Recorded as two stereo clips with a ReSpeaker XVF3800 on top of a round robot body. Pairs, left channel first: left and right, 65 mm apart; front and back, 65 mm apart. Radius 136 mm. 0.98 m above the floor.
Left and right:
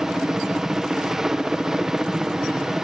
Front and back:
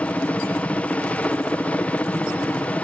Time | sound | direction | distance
0.0 | a helicopter | 20° right | ?